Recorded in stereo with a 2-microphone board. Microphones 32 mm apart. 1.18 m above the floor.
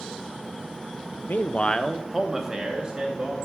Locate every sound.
1.3 s a man speaking: 65° left (ahead or behind), 0.5 m; by 3.4 s 35° right (ahead or behind), 1.6 m